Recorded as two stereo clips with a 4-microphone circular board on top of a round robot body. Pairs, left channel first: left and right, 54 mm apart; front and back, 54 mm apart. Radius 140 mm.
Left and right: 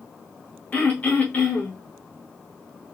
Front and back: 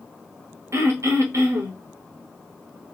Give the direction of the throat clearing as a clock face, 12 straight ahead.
7 o'clock.